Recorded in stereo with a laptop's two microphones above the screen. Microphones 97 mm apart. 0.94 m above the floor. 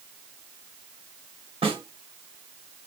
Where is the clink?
No clink in this recording.